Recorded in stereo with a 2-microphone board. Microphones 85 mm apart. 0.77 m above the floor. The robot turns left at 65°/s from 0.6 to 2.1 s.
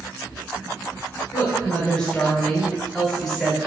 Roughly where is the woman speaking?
Ahead left.